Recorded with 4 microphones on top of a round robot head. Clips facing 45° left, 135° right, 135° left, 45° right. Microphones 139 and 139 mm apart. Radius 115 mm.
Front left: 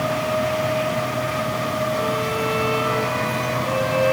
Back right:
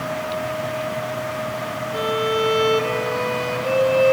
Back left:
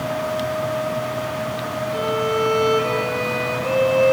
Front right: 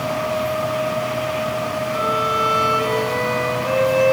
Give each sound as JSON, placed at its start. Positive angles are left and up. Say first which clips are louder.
{"t": 1.9, "sound": "a violin", "louder": "back right 1 dB, back left 4 dB", "azimuth_deg": -155, "distance_m": 4.0}